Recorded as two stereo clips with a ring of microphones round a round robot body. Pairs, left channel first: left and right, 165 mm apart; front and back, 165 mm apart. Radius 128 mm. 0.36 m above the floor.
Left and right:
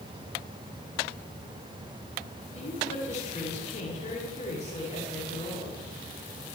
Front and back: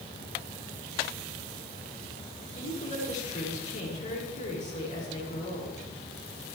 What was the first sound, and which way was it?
A woman speaking, 45° left.